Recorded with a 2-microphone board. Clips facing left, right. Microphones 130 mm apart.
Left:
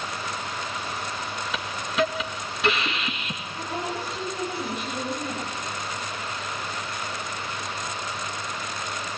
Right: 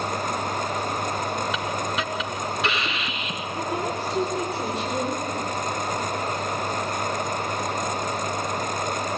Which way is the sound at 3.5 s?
85° right.